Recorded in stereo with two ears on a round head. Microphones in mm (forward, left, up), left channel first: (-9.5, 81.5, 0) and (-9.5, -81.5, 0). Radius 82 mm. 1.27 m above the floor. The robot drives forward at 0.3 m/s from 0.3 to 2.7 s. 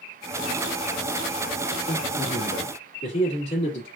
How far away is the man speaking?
About 2.0 m.